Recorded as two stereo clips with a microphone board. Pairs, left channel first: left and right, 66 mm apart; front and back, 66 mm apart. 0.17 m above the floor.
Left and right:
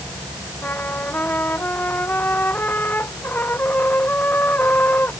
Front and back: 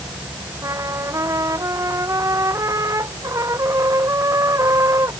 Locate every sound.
0.6 s a trumpet: 150° left